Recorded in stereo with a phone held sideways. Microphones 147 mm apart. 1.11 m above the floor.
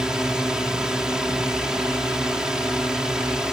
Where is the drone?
5° right (ahead or behind).